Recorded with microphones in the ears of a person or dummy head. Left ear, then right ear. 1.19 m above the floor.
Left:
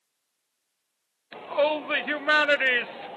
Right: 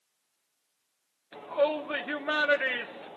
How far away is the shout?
About 0.7 m.